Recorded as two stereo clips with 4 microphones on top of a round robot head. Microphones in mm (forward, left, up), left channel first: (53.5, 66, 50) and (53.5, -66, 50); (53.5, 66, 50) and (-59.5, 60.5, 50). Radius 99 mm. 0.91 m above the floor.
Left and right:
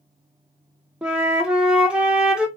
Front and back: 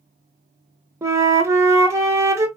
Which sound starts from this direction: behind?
A flute, at 1.0 s.